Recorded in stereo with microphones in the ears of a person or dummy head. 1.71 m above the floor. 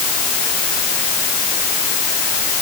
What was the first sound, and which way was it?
Only background noise.